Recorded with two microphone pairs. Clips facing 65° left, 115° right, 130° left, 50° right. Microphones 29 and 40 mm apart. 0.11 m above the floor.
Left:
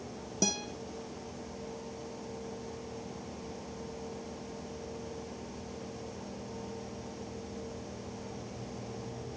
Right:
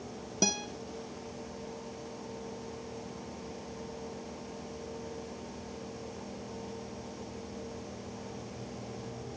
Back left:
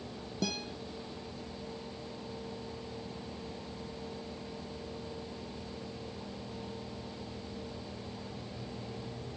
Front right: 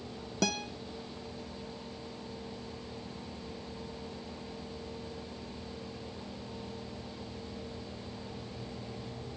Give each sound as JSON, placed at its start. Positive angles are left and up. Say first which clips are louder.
{"t": 0.4, "sound": "a guitar", "louder": "right 2 dB, front right 4 dB", "azimuth_deg": -50, "distance_m": 1.2}